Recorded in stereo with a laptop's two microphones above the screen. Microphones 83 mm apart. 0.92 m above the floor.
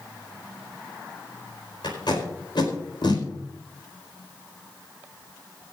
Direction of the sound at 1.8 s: 60° left (ahead or behind).